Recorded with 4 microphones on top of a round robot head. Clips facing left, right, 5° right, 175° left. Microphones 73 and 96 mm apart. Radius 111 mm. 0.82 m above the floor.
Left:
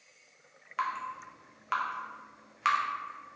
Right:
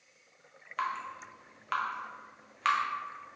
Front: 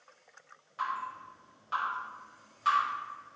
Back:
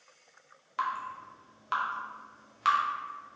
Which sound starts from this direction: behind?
Dripping, at 0.8 s.